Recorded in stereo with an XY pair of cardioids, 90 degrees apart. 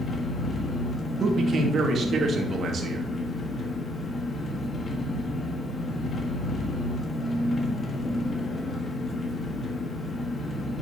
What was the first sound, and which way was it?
An engine running, 50° left.